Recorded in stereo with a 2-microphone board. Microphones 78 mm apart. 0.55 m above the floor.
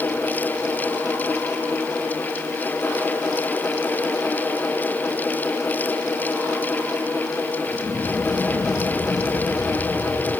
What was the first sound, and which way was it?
Only background noise.